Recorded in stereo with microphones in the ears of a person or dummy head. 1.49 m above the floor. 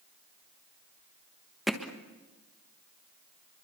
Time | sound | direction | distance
1.7 | hammering | centre (ahead or behind) | 1.3 m